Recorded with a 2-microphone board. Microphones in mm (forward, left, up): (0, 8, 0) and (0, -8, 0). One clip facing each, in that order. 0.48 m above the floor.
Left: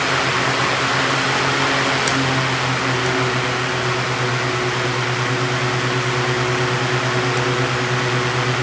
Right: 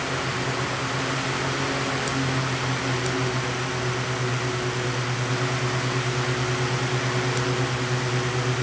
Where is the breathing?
No breathing in this recording.